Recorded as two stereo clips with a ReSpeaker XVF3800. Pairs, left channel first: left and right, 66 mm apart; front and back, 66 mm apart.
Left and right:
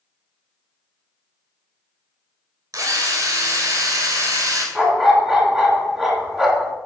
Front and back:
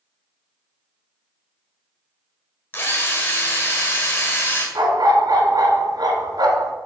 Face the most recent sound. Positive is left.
turn(degrees=-170)